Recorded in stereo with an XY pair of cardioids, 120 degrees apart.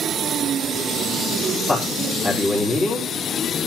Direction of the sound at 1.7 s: 35° left.